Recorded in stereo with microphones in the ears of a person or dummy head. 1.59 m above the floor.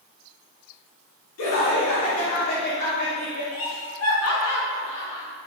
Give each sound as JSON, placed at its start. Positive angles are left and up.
{"t": 1.4, "sound": "laughter", "side_deg": 85, "distance_m": 2.5}
{"t": 3.5, "sound": "laughter", "side_deg": 80, "distance_m": 3.0}